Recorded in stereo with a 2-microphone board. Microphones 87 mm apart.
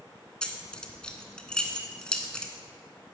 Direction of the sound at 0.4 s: 10° left (ahead or behind).